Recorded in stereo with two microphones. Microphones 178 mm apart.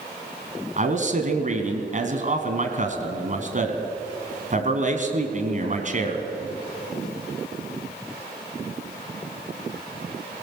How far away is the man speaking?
About 2.5 m.